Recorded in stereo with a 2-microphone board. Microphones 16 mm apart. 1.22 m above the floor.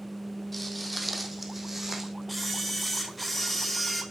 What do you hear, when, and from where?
0.5 s footsteps: 5° left (ahead or behind), 1.9 m; by 2.1 s 25° right (ahead or behind), 2.5 m
2.3 s a camera shutter: 5° right (ahead or behind), 1.9 m